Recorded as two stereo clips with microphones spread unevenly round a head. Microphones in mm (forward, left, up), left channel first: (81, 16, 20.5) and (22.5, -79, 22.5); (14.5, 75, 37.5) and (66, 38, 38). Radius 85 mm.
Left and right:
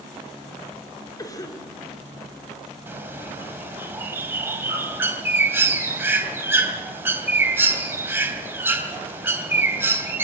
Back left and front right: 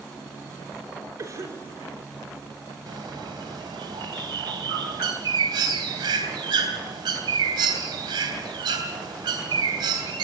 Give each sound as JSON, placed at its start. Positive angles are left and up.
{"t": 1.2, "sound": "a cough", "azimuth_deg": 0, "distance_m": 3.5}
{"t": 2.9, "sound": "a bird", "azimuth_deg": -50, "distance_m": 3.0}